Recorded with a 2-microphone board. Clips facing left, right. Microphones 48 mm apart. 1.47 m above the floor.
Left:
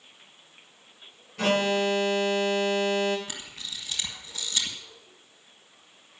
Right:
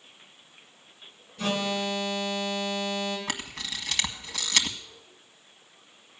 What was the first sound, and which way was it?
An alarm, 85° left.